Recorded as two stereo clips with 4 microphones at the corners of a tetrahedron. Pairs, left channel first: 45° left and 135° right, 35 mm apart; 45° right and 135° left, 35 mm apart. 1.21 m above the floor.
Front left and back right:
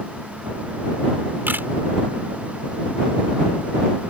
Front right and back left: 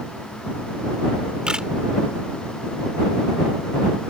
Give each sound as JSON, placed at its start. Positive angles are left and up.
{"t": 1.5, "sound": "a camera shutter", "azimuth_deg": -155}